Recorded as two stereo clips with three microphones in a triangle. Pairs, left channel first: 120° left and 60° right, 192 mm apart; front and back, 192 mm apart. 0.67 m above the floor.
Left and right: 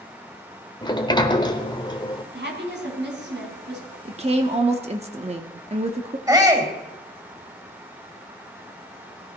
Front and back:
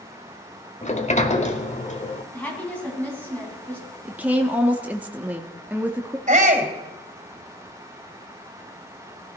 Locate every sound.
0.8 s a sliding door: 50° left, 1.2 m
2.3 s a woman speaking: 80° right, 5 m
4.0 s a woman speaking: 100° right, 1.1 m
6.3 s a shout: 130° right, 3.5 m